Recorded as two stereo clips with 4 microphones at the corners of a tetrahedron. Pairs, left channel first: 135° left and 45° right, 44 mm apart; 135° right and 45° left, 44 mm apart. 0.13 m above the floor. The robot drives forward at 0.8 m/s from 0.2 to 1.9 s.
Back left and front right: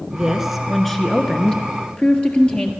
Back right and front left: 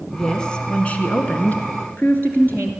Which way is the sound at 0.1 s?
85° right.